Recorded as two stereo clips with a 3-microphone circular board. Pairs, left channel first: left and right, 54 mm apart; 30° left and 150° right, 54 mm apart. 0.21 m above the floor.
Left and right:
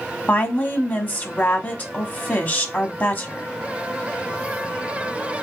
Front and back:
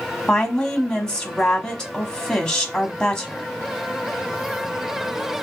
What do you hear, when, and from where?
0.3 s a woman speaking: 95° left, 1.1 m